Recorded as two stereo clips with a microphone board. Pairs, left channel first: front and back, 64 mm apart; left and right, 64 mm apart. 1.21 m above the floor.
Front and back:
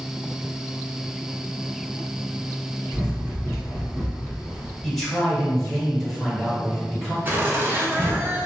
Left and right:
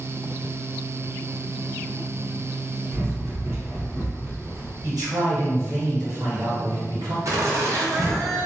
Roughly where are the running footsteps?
Behind right.